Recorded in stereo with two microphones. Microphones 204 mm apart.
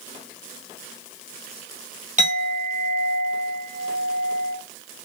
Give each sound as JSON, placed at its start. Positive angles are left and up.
{"t": 2.2, "sound": "a clink", "side_deg": -35, "distance_m": 1.0}